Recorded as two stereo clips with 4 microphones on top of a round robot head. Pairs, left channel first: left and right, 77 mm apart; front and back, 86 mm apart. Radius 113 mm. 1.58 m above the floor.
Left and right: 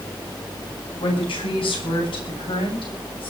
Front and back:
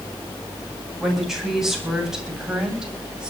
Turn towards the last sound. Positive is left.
turn(degrees=100)